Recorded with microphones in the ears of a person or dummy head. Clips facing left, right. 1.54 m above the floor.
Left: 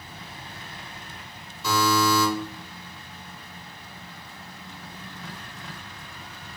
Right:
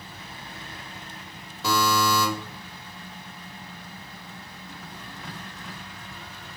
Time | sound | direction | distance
1.6 | a buzzer | 55° right (ahead or behind) | 1.8 m